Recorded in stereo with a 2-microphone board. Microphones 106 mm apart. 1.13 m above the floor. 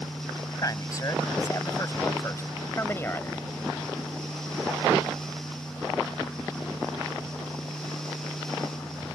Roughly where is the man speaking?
Left.